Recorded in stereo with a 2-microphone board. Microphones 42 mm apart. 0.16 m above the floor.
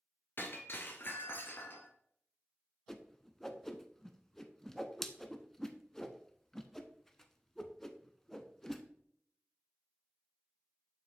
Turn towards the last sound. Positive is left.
turn(degrees=10)  # may be behind; listen again after turning